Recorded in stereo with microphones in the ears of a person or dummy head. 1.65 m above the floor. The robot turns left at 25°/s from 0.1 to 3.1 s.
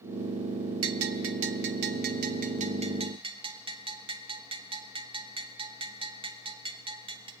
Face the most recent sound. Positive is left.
turn(degrees=-25)  # may be behind; listen again after turning